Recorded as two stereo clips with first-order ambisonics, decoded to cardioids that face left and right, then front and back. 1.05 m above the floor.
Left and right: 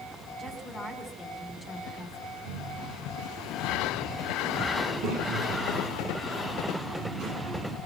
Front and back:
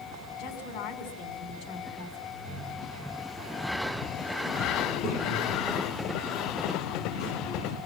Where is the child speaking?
40° right, 8.5 m.